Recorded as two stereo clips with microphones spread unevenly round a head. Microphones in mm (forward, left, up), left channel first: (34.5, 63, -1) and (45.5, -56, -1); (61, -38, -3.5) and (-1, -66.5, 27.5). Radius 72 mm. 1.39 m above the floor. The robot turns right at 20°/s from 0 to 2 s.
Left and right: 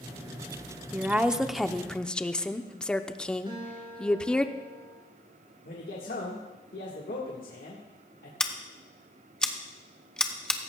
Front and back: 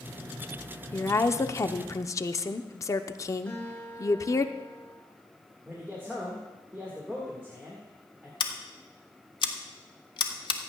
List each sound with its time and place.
0.9 s a woman speaking: 10° right, 0.7 m; by 4.5 s 15° left, 0.7 m
3.5 s a guitar: 40° right, 4.5 m
5.7 s a man speaking: 120° left, 1.6 m
8.4 s scissors: 15° left, 1.1 m